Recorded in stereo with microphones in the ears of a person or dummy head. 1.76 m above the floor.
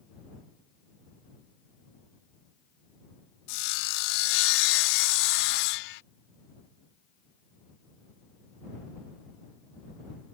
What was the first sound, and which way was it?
Sawing, 60° left (ahead or behind).